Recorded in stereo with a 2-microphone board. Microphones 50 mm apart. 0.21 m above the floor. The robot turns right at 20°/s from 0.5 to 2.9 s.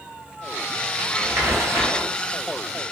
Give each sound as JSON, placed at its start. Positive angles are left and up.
{"t": 1.0, "sound": "crumpling", "side_deg": -55, "distance_m": 1.2}